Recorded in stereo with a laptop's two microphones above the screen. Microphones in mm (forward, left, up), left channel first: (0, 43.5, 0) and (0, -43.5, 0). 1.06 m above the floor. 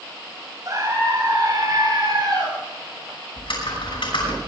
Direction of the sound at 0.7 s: 40° right (ahead or behind).